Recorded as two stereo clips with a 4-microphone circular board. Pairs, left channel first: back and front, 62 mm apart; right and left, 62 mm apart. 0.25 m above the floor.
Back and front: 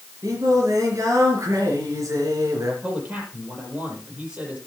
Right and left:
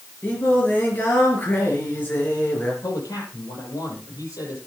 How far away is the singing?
About 5 m.